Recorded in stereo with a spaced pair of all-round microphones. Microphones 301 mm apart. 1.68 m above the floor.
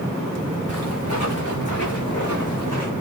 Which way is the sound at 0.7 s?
50° left (ahead or behind).